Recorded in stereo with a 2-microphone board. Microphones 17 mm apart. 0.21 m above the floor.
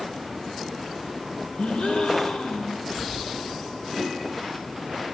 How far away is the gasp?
About 7 m.